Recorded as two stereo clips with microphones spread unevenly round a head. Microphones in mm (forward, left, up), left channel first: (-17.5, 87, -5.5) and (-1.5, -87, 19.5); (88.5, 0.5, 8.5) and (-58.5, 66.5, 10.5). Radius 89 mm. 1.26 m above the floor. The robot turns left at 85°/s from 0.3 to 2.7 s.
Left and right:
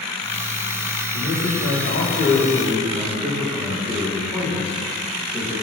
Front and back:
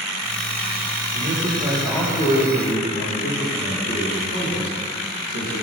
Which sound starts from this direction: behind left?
A man speaking, at 1.1 s.